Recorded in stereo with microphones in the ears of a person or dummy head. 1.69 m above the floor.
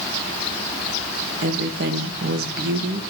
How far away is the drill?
No drill in this recording.